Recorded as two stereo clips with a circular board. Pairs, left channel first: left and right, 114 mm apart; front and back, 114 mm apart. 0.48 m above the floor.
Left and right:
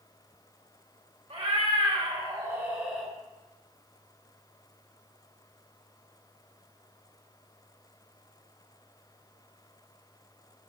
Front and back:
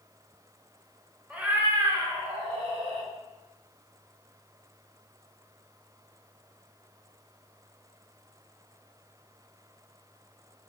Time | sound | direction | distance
1.3 | a cat meowing | 100° right | 1.1 m